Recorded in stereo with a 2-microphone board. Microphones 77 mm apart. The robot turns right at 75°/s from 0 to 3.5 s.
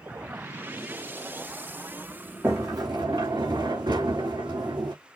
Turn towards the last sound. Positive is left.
turn(degrees=-70)